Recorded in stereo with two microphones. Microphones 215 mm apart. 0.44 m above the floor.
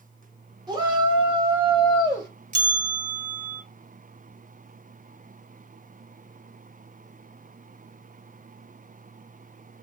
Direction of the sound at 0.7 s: 20° right (ahead or behind).